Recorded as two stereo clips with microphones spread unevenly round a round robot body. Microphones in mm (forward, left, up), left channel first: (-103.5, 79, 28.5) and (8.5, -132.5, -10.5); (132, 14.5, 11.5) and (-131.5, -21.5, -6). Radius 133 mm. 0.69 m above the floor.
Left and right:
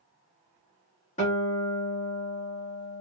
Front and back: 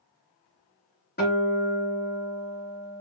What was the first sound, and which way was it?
A guitar, 55° left.